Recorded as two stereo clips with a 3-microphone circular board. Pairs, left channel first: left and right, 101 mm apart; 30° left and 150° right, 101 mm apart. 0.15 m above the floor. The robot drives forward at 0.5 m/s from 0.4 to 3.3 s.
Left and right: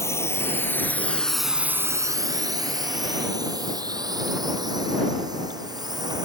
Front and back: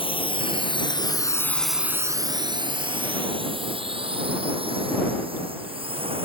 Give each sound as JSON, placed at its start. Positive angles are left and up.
{"t": 0.0, "sound": "a drone", "azimuth_deg": 35}